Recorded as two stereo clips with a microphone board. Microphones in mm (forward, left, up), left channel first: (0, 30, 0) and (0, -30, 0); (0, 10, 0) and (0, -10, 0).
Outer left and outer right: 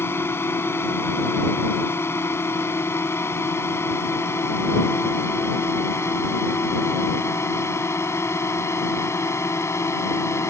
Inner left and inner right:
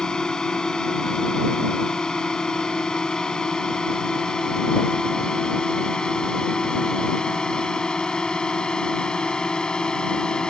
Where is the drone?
45° left (ahead or behind); by 10.5 s 50° left (ahead or behind).